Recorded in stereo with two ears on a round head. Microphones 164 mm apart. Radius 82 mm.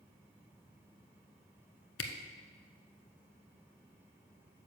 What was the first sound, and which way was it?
A camera shutter, 70° left (ahead or behind).